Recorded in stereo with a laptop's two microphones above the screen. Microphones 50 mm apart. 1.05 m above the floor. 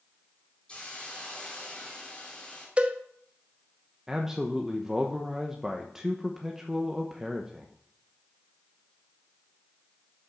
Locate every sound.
0.7 s a hiss: 20° left (ahead or behind), 2.5 m
2.8 s a cowbell: 25° right (ahead or behind), 0.8 m
4.1 s a man speaking: 10° right (ahead or behind), 1.1 m